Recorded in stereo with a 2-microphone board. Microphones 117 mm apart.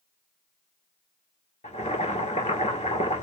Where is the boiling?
75° left (ahead or behind), 1.9 m.